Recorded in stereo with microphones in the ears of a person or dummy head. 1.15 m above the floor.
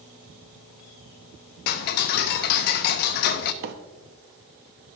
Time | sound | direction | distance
1.7 | ticking | 55° left (ahead or behind) | 0.6 m
3.6 | a microwave | 65° right (ahead or behind) | 0.9 m